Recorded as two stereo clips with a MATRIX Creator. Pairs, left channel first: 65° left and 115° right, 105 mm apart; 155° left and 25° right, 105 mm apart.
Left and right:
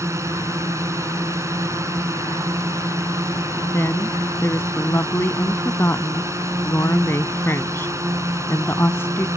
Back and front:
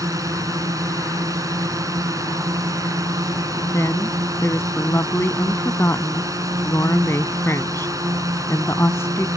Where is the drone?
65° right.